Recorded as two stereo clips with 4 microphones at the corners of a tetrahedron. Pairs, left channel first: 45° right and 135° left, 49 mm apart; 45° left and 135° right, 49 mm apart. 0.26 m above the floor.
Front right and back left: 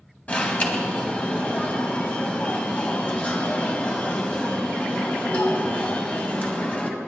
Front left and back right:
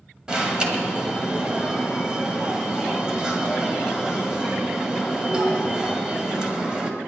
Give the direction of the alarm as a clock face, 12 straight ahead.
3 o'clock.